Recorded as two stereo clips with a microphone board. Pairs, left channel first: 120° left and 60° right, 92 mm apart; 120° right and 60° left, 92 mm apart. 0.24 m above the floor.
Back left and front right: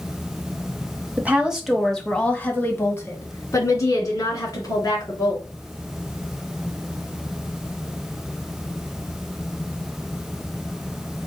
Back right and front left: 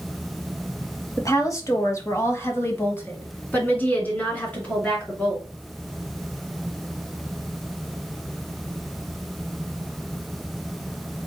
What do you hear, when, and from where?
1.2 s a woman speaking: 120° right, 1.1 m; by 5.4 s 165° left, 3 m